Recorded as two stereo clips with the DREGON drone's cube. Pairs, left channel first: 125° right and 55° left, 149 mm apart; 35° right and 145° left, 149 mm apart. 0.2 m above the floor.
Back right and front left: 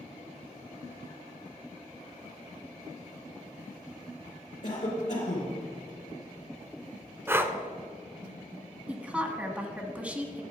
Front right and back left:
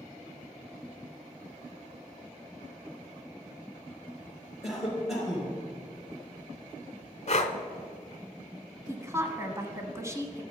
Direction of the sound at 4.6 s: 125° right.